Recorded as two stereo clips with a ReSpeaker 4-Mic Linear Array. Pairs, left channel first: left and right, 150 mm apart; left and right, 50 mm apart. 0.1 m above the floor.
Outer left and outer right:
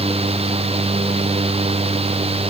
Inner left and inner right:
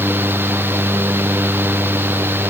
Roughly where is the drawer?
No drawer in this recording.